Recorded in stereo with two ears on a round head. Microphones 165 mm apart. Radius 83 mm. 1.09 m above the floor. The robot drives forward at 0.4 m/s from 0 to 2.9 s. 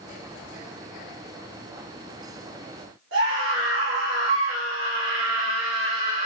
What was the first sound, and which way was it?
A scream, 80° right.